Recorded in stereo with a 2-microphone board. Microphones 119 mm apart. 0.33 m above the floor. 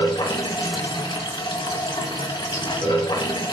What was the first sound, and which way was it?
Running water, 45° left (ahead or behind).